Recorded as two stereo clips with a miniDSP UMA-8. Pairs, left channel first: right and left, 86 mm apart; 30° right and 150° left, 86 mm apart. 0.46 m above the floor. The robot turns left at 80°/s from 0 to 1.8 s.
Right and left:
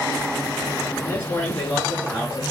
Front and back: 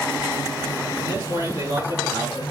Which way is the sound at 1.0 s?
135° right.